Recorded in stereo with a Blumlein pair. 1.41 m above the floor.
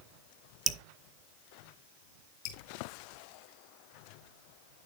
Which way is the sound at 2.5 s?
40° left.